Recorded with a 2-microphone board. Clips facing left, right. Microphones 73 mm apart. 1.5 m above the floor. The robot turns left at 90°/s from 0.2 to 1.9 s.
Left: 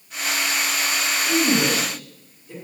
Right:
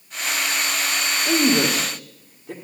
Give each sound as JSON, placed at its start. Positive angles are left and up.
{"t": 1.2, "sound": "a woman speaking", "side_deg": -35, "distance_m": 1.5}